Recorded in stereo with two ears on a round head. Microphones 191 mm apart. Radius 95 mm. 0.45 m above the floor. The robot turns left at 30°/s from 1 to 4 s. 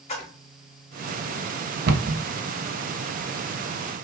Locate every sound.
0.1 s a splash: 30° left (ahead or behind), 1.4 m
1.9 s a cupboard door: 45° right (ahead or behind), 0.6 m; by 2.2 s 55° right (ahead or behind), 0.6 m